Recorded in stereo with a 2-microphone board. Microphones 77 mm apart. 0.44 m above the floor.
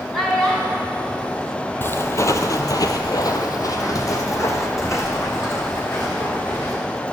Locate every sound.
0.1 s a child speaking: 5° left (ahead or behind), 2.5 m
1.8 s footsteps: 30° left (ahead or behind), 0.7 m